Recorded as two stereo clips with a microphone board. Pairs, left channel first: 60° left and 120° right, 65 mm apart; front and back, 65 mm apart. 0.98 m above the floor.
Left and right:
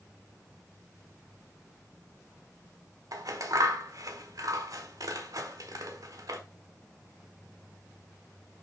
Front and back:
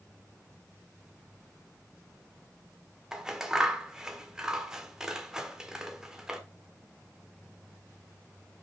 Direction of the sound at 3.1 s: 100° right.